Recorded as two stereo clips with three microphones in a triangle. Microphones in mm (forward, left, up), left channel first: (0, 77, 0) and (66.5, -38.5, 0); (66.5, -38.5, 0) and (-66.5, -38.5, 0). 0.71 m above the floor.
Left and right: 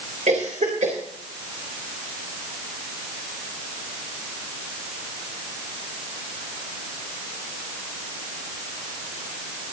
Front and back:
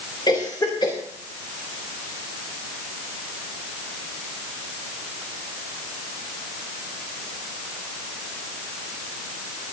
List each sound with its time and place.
0.3 s a cough: 55° right, 3 m